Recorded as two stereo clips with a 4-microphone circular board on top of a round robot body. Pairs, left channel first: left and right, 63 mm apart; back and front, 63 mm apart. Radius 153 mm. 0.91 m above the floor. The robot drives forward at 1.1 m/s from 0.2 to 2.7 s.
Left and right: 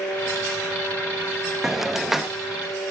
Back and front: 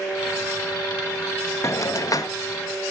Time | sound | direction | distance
1.6 | a hiss | 175° right | 1.0 m